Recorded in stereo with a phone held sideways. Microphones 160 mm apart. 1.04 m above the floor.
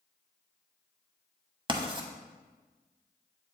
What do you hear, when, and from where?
1.7 s writing: 30° right (ahead or behind), 1.0 m